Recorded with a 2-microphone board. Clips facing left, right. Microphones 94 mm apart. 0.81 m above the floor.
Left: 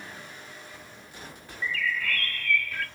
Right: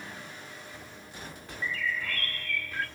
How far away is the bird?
About 1.2 m.